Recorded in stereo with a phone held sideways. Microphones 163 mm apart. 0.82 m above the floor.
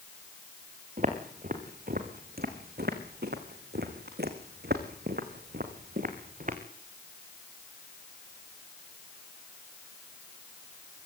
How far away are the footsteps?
About 4.5 m.